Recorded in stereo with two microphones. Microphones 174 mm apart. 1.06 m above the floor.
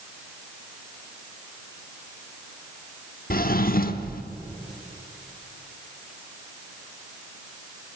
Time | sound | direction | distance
3.3 | a drawer | 60° left (ahead or behind) | 0.9 m